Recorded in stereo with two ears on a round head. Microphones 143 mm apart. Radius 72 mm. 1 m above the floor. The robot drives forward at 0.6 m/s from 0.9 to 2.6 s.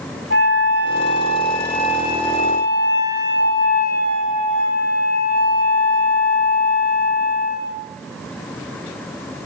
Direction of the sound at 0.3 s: 75° left (ahead or behind).